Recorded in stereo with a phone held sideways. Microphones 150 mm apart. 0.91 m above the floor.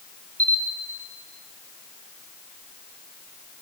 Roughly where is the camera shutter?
Left.